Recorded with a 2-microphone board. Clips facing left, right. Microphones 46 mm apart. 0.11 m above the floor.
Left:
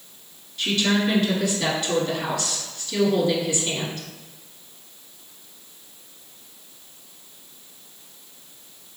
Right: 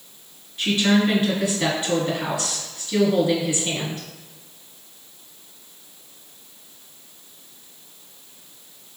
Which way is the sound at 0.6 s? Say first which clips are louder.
Right 3 dB; 25° right (ahead or behind).